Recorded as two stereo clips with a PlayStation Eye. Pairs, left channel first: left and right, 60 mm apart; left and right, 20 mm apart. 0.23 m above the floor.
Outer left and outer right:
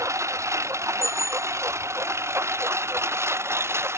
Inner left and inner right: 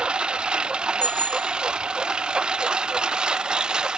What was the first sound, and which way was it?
A lawn mower, 55° right (ahead or behind).